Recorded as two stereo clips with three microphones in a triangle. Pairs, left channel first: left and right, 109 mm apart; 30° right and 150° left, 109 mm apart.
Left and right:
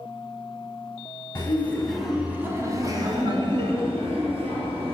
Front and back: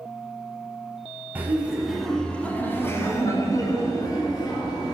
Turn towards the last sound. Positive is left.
turn(degrees=-75)